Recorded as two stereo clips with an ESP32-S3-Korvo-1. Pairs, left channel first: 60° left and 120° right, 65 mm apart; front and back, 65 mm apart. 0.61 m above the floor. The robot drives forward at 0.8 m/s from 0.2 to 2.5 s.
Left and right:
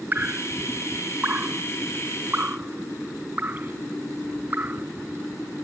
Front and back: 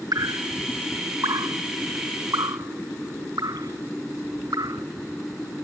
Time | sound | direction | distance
0.1 | dripping | straight behind | ?